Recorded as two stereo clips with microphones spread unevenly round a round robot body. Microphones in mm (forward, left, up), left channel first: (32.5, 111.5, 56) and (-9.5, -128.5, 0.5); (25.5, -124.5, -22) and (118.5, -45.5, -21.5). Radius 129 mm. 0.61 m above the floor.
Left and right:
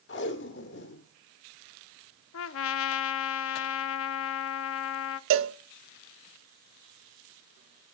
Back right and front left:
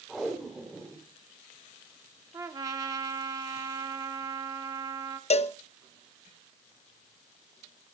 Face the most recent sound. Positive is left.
turn(degrees=-110)